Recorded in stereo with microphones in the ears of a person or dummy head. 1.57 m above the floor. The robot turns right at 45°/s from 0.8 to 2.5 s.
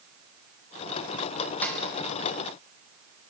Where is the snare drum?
5° left (ahead or behind), 4 m; by 1.8 s centre (ahead or behind), 4 m.